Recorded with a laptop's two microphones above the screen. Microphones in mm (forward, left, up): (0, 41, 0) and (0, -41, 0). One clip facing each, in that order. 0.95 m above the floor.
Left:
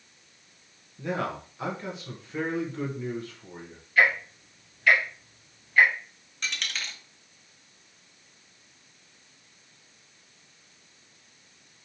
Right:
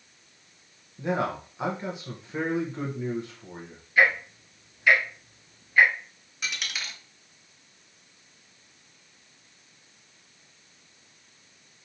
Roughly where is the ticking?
Centre.